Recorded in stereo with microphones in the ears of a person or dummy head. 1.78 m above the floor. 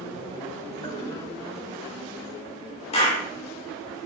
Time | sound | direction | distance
0.8 | a toilet flushing | 25° left (ahead or behind) | 6 m
2.9 | a clap | 35° left (ahead or behind) | 4.5 m